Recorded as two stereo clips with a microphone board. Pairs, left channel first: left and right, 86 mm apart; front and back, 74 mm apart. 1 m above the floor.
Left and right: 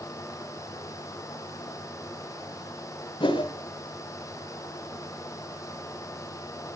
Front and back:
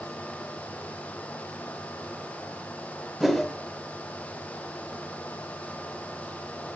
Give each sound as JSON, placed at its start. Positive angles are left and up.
{"t": 3.2, "sound": "a whoosh", "azimuth_deg": 90, "distance_m": 2.0}